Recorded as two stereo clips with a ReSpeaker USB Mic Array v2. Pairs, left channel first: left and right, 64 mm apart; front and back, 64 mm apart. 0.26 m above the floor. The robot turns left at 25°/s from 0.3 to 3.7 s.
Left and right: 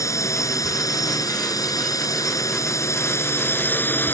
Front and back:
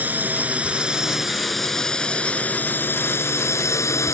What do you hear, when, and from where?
0.0 s a drone: 120° left; by 4.2 s 35° left